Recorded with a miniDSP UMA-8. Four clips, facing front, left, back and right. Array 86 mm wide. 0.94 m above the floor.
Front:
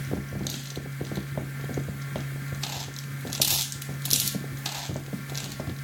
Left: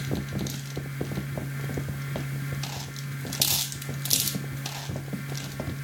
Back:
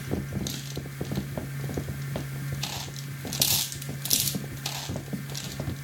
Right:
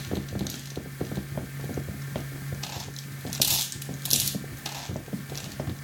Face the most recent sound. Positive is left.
No sound to turn to.